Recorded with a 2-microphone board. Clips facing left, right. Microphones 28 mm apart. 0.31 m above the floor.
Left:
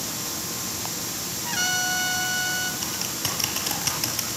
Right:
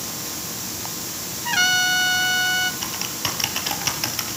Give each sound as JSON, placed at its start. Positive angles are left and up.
{"t": 1.4, "sound": "a trumpet", "side_deg": -30, "distance_m": 0.8}
{"t": 2.8, "sound": "typing on a keyboard", "side_deg": -20, "distance_m": 3.5}